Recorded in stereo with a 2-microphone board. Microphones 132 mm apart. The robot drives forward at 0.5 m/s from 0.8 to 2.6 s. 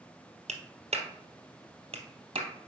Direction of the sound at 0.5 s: 60° right (ahead or behind).